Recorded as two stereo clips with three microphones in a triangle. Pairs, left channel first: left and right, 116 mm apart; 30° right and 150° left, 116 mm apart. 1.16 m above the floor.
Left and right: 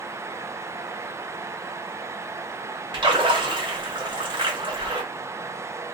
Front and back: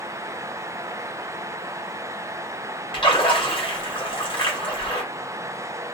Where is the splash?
55° right, 1.3 m.